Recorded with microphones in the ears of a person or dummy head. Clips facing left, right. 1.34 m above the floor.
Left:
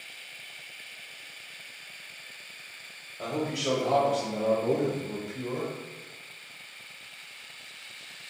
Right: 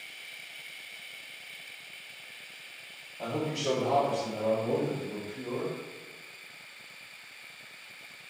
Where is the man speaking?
5° left (ahead or behind), 1.0 m; by 5.7 s 60° left (ahead or behind), 0.9 m.